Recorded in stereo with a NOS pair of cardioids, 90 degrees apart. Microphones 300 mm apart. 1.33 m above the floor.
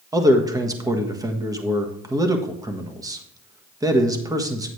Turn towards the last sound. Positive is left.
turn(degrees=-10)